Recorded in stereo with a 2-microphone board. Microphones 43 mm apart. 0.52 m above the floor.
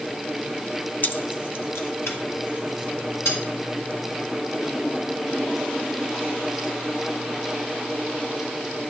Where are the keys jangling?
45° left (ahead or behind), 0.5 m; by 3.4 s 85° left, 4 m.